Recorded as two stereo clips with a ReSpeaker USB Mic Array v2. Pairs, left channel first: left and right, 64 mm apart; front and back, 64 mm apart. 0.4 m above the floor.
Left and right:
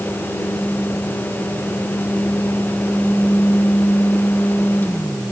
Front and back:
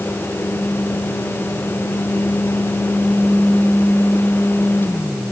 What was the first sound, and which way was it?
Only background noise.